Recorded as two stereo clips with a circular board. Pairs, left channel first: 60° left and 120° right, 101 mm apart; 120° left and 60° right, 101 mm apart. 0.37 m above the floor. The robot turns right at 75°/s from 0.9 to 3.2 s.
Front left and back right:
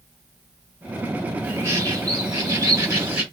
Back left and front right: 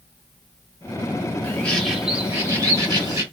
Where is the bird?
Straight behind, 1.9 m; by 3.2 s 50° right, 1.9 m.